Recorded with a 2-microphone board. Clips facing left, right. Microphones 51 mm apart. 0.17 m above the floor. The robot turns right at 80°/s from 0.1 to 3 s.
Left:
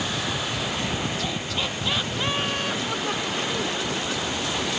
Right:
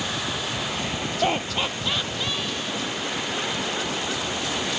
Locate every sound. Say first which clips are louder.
1.2 s laughter: right 4 dB; 50° right (ahead or behind); by 3.7 s 75° left (ahead or behind)